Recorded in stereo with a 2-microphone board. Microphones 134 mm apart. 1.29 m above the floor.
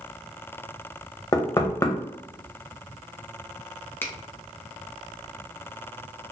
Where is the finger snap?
15° left (ahead or behind), 0.6 m.